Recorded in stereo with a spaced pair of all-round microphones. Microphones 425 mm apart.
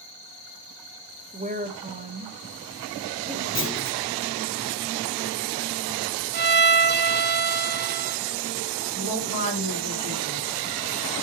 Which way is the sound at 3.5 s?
30° left (ahead or behind).